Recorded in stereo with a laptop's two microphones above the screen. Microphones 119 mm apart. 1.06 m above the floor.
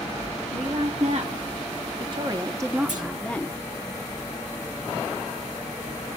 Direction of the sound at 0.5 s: 60° right (ahead or behind).